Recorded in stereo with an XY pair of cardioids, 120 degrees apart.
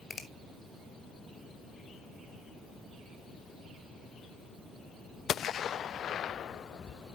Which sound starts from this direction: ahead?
A finger snap, at 0.1 s.